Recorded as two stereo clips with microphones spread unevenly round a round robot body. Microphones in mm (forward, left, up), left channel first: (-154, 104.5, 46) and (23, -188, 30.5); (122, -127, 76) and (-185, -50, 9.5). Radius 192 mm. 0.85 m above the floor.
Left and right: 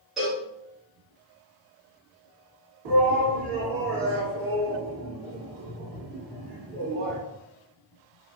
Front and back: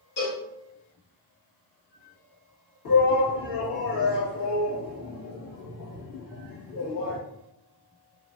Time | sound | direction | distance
0.2 | a cowbell | 30° left | 1.2 m
2.9 | a shout | 45° right | 1.4 m